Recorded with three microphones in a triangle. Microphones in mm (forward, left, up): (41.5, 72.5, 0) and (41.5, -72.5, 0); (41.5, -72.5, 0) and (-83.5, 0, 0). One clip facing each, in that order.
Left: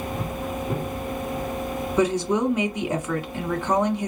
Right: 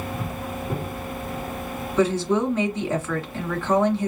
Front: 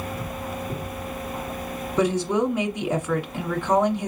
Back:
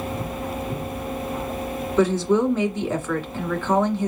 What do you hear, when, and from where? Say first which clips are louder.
2.0 s a woman speaking: right 1 dB, back 3 dB; 30° left, 1.6 m